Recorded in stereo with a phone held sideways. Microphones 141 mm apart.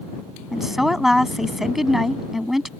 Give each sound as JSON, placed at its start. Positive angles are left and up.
{"t": 0.5, "sound": "a woman speaking", "side_deg": 0}